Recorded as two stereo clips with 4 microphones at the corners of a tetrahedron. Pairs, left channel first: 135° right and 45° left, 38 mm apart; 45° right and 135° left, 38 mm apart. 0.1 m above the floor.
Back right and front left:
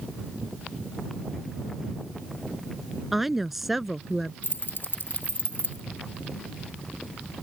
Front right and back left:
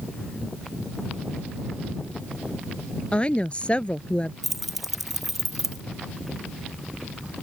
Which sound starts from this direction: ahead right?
A woman speaking, at 3.1 s.